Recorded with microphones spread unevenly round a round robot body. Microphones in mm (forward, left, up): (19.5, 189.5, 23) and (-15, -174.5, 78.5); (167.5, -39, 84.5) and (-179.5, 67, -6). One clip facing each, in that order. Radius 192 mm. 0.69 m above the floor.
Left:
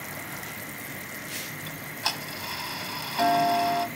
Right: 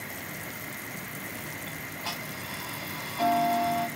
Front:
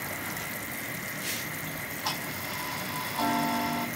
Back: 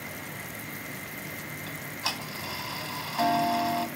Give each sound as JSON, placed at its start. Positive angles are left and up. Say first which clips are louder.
{"t": 1.7, "sound": "ticking", "louder": "left 1 dB, front 1 dB", "azimuth_deg": 110, "distance_m": 0.9}